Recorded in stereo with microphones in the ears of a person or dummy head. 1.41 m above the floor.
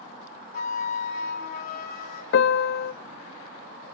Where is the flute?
50° left (ahead or behind), 3 m.